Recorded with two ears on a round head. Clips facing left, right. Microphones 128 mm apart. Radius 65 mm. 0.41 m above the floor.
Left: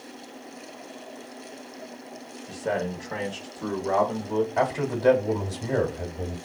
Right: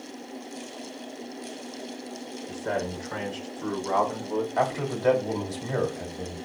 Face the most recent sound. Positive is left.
turn(degrees=25)  # may be behind; listen again after turning